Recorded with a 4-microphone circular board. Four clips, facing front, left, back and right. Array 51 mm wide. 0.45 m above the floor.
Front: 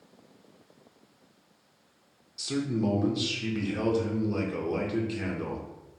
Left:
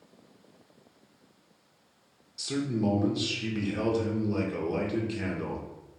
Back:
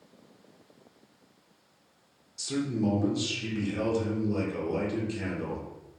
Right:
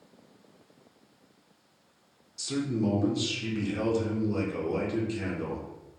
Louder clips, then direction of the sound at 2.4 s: Even, even; 40° left.